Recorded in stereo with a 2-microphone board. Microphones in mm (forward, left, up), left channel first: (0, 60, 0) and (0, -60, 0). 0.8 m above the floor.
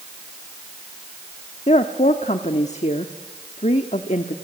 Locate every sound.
1.7 s a woman speaking: 70° left (ahead or behind), 1.2 m